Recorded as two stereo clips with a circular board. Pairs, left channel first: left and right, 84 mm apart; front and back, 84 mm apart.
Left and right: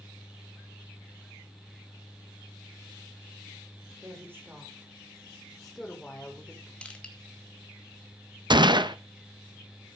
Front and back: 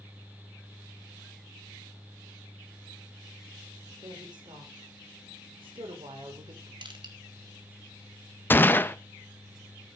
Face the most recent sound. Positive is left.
turn(degrees=-65)